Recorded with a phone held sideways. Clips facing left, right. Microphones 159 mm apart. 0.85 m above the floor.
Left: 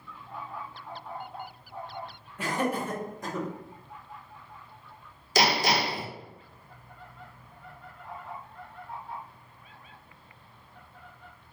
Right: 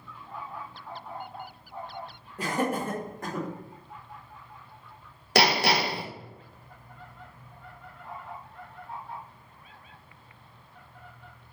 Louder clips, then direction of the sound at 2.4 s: Right 1 dB; 35° right (ahead or behind).